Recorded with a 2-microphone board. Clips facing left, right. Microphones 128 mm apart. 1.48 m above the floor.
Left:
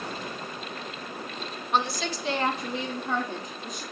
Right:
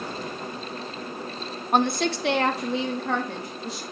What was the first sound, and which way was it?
A woman speaking, 45° right (ahead or behind).